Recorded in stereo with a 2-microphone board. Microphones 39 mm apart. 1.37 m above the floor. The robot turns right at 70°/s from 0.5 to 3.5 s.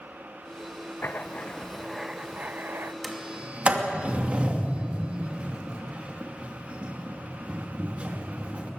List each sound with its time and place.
1.0 s writing: 120° left, 0.7 m; by 2.9 s 105° right, 0.7 m
3.0 s a sliding door: centre (ahead or behind), 2.5 m; by 8.7 s 30° right (ahead or behind), 2.5 m